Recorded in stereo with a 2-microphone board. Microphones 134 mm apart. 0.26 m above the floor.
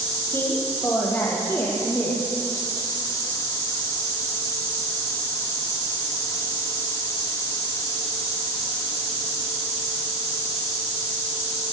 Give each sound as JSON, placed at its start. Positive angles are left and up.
{"t": 0.3, "sound": "a woman speaking", "side_deg": 15, "distance_m": 7.5}